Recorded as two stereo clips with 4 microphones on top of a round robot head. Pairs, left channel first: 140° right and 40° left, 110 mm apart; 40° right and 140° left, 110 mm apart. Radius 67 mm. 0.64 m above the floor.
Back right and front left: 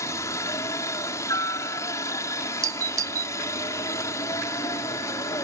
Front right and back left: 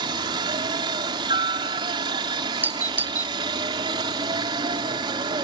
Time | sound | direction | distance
0.0 | a helicopter | 165° left | ?
2.6 | a doorbell | 80° left | ?